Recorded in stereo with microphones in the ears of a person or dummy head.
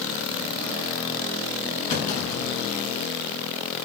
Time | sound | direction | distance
1.9 | a clunk | 50° left (ahead or behind) | 6.5 m